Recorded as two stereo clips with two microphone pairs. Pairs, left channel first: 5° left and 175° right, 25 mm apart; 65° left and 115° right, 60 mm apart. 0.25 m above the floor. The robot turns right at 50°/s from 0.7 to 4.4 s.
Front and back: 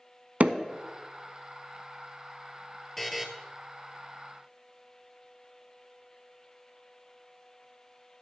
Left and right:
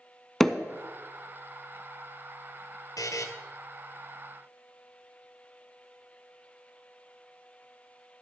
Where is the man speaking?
I don't hear a man speaking.